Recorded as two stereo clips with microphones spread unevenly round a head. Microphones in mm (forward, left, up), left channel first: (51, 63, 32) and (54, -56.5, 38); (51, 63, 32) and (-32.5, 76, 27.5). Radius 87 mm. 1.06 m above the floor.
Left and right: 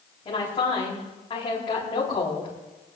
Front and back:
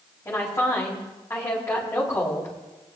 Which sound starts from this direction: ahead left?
A woman speaking, at 0.2 s.